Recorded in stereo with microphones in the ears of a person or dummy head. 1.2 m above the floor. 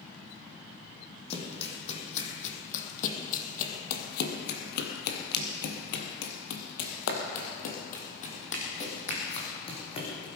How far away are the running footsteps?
About 3.5 m.